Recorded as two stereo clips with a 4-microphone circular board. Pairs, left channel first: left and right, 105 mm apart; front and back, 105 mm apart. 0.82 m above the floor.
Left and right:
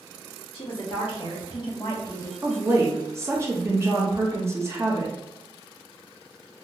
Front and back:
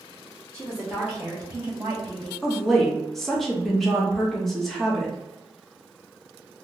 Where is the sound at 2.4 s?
85° right, 0.9 m.